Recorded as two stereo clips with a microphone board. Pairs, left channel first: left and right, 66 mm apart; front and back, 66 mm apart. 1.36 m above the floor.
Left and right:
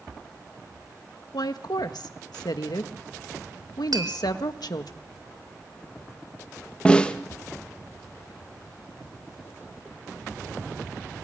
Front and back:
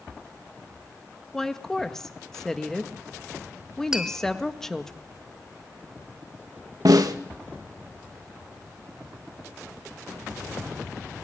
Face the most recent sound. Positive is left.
turn(degrees=165)